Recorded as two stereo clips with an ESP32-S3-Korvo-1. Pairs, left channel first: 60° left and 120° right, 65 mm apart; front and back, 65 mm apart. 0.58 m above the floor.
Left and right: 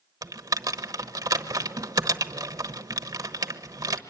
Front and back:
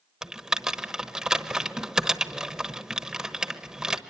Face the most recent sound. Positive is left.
turn(degrees=-100)